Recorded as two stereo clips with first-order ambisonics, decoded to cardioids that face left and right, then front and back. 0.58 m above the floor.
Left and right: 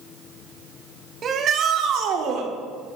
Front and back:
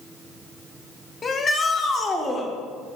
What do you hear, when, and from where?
1.2 s a shout: 45° right, 1.0 m; by 2.5 s 70° right, 1.6 m